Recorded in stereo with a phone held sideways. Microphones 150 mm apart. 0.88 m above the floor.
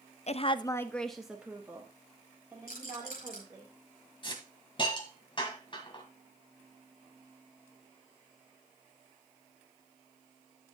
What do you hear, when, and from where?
0.3 s a woman speaking: 50° left (ahead or behind), 0.5 m; by 3.7 s 25° right (ahead or behind), 3 m
2.7 s a rattle: 85° left, 5.5 m
4.2 s a hiss: 35° left (ahead or behind), 1.9 m